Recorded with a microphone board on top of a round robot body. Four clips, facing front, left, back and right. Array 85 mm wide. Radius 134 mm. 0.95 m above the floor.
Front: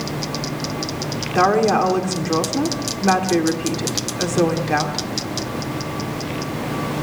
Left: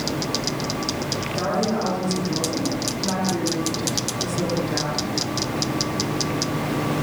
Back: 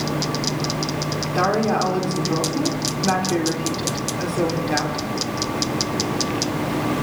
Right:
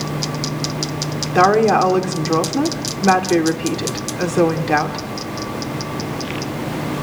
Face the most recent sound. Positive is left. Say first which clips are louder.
# right 12 dB, front 4 dB
turn(degrees=-75)